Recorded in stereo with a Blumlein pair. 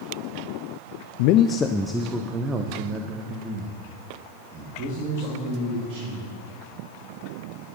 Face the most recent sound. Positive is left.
turn(degrees=-35)